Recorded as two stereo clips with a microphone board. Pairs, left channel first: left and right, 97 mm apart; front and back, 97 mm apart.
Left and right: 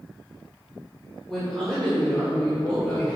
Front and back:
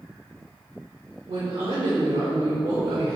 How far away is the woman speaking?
About 2 m.